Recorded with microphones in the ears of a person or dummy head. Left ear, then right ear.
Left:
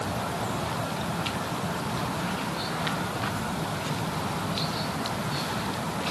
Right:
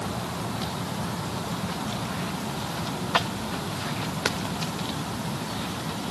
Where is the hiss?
I don't hear a hiss.